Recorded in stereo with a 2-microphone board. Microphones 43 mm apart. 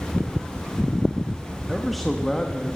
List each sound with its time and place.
1.7 s a man speaking: 5° right (ahead or behind), 1.5 m; by 2.8 s 20° left (ahead or behind), 1.7 m